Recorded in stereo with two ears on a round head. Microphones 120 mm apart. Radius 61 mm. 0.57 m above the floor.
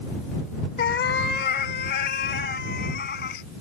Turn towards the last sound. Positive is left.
turn(degrees=80)